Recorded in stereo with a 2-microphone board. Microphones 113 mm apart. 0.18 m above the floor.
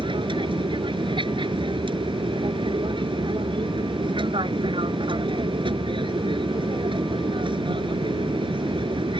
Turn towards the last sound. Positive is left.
turn(degrees=-45)  # may be behind; listen again after turning